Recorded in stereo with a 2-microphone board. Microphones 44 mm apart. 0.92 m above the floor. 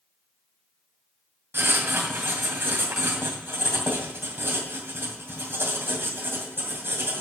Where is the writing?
60° right (ahead or behind), 2 m.